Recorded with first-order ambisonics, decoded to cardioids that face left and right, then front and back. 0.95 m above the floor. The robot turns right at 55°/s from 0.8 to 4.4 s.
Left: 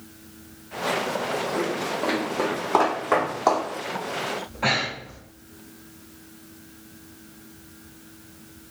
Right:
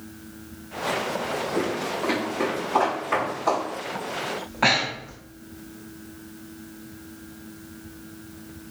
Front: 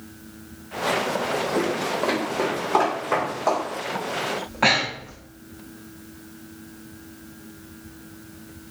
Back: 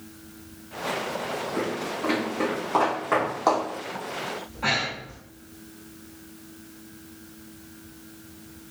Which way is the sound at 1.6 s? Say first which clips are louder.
Even, front 5 dB; 10° right.